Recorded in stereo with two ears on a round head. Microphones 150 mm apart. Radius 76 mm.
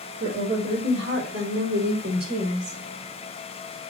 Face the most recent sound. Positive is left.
turn(degrees=-65)  # may be behind; listen again after turning